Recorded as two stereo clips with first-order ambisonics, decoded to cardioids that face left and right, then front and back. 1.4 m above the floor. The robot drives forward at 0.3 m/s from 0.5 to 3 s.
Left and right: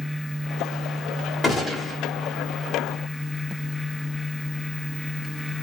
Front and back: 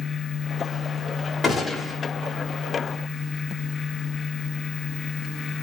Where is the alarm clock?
No alarm clock in this recording.